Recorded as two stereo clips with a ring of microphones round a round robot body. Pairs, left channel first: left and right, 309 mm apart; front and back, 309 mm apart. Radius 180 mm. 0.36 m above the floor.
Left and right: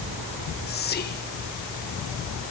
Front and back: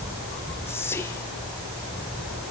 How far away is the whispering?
About 0.9 m.